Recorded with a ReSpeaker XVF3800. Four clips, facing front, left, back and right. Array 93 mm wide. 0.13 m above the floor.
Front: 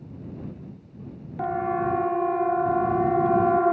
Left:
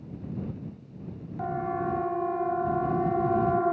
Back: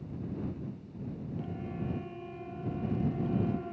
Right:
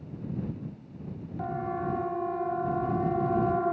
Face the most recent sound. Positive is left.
turn(degrees=5)